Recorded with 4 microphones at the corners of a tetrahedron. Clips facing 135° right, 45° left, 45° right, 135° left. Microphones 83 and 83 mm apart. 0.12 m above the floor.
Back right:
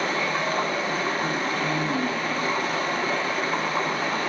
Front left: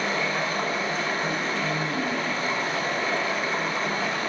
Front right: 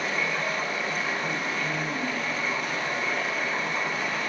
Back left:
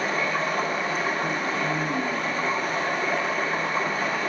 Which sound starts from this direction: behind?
Running water, at 0.0 s.